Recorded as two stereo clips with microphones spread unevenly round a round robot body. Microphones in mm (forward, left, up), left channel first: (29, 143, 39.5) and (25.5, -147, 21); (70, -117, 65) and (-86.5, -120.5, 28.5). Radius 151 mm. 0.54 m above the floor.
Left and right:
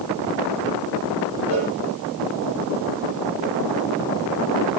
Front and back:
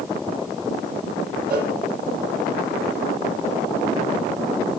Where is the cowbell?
160° right, 9.5 m.